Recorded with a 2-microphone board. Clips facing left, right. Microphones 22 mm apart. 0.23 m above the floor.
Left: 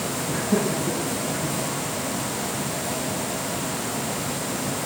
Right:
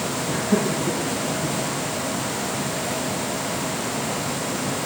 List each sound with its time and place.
0.3 s laughter: 10° right (ahead or behind), 2.5 m; by 1.6 s 30° right (ahead or behind), 3.5 m